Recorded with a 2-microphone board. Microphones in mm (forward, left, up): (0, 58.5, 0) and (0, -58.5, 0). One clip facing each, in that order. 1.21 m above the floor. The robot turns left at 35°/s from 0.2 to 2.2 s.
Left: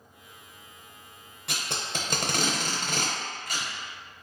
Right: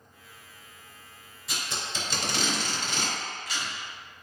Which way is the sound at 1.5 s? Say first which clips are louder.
Left 1 dB; 75° left (ahead or behind).